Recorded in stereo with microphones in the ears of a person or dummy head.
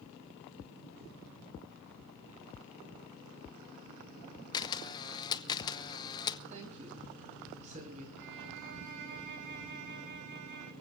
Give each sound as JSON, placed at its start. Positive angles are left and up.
{"t": 4.5, "sound": "a camera shutter", "side_deg": 20, "distance_m": 0.7}
{"t": 6.5, "sound": "a woman speaking", "side_deg": -35, "distance_m": 6.0}
{"t": 8.2, "sound": "a violin", "side_deg": -65, "distance_m": 3.0}